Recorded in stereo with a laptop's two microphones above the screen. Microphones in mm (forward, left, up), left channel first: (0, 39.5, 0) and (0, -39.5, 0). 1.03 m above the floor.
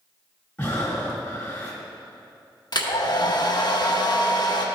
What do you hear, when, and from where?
0.6 s breathing: 20° left (ahead or behind), 1.4 m
2.7 s a hair dryer: 60° left (ahead or behind), 0.8 m